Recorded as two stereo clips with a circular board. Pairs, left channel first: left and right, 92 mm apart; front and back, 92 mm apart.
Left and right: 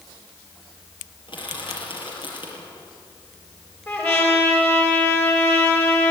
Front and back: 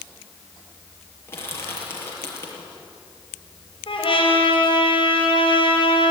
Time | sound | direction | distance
1.3 | crushing | 65° left | 6.5 m
3.9 | a trumpet | 25° left | 5 m